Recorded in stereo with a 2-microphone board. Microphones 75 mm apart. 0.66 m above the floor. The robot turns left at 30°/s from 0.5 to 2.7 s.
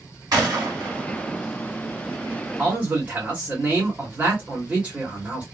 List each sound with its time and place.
0.3 s a gunshot: 65° right (ahead or behind), 2 m; by 1.4 s 60° right (ahead or behind), 2 m
2.6 s a man speaking: 20° right (ahead or behind), 1.7 m